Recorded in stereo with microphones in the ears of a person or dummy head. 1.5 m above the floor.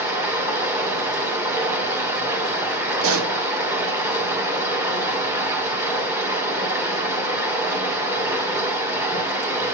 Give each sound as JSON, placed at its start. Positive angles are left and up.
{"t": 0.0, "sound": "running water", "side_deg": -15, "distance_m": 1.8}
{"t": 3.0, "sound": "a pop", "side_deg": -85, "distance_m": 1.6}